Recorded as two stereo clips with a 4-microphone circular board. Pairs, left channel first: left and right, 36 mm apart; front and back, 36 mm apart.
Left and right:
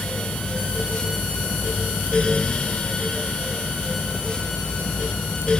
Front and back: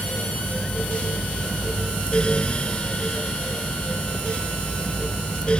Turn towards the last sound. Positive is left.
No sound to turn to.